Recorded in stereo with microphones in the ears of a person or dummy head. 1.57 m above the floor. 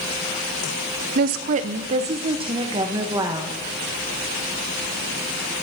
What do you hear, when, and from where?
1.1 s a woman speaking: 60° right (ahead or behind), 0.7 m; by 3.6 s 20° right (ahead or behind), 1.7 m